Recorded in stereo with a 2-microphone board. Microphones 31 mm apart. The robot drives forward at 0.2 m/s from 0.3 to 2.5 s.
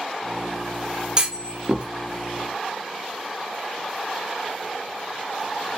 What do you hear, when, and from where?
1.2 s a clunk: 30° right (ahead or behind), 0.5 m